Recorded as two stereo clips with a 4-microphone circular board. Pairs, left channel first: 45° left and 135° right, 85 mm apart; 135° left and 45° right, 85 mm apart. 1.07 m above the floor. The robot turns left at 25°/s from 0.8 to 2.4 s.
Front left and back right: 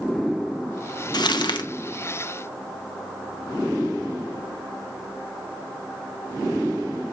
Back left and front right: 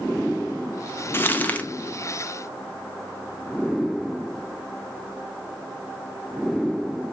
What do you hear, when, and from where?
1.1 s crumpling: 75° left, 1.1 m; by 1.7 s 60° left, 1.1 m